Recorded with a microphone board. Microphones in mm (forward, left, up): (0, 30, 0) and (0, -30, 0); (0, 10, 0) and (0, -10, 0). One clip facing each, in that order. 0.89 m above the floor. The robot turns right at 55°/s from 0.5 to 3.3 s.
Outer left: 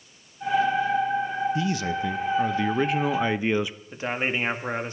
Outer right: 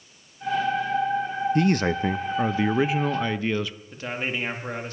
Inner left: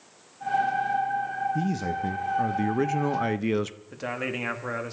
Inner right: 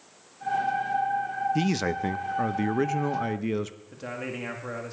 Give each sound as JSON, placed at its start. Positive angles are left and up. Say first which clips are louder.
{"t": 1.6, "sound": "a man speaking", "louder": "outer right 4 dB, inner right 2 dB", "azimuth_deg": -75, "distance_m": 0.6}
{"t": 3.9, "sound": "a man speaking", "louder": "outer left 3 dB, inner left 5 dB", "side_deg": 20, "distance_m": 1.9}